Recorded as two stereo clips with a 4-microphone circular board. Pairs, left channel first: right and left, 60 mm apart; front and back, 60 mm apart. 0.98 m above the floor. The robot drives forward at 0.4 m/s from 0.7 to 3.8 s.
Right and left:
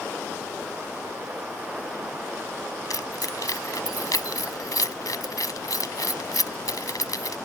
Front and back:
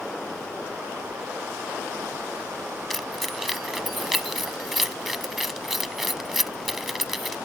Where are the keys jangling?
85° right; by 7.4 s 90° right.